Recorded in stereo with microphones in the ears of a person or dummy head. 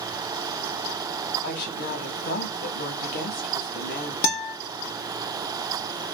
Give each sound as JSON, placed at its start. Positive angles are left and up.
{"t": 1.4, "sound": "a woman speaking", "side_deg": 60, "distance_m": 1.3}
{"t": 4.2, "sound": "a guitar", "side_deg": 50, "distance_m": 1.0}